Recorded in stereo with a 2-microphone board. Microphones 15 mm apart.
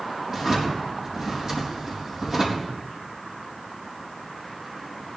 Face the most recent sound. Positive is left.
turn(degrees=-35)  # may be behind; listen again after turning